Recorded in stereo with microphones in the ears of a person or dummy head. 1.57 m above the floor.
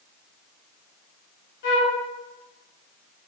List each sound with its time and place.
1.6 s a flute: 55° left (ahead or behind), 0.7 m